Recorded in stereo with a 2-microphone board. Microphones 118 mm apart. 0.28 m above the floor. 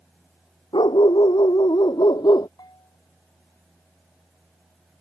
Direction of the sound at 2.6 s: 35° left (ahead or behind).